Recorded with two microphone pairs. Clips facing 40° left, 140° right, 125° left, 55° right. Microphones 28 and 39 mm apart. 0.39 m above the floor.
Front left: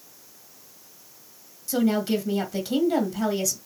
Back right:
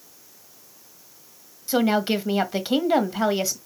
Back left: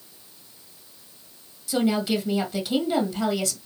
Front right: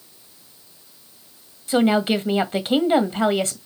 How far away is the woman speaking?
About 1.7 m.